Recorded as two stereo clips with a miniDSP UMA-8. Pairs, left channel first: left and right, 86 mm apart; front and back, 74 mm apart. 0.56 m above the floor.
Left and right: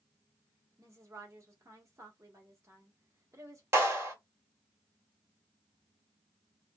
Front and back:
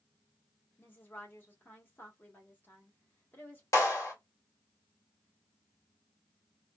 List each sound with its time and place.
0.8 s a woman speaking: 50° right, 1.4 m
3.7 s a clap: 35° right, 1.4 m